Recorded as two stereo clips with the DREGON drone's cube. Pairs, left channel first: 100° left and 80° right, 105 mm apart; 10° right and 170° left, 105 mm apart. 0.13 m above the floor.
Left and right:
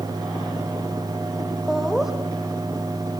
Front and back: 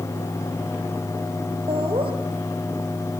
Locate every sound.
1.7 s laughter: 165° right, 4 m